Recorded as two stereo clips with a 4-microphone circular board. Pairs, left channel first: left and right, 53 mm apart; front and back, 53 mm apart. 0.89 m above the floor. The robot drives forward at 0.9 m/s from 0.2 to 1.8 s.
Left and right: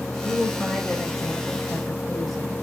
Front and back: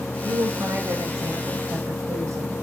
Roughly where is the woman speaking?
Behind.